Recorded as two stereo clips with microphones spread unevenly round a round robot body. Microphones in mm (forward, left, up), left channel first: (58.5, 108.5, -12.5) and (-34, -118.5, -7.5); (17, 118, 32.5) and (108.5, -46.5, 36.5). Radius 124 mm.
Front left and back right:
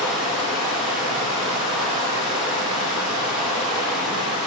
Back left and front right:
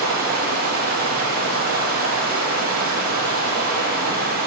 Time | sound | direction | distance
0.0 | running water | 20° right | 5.5 m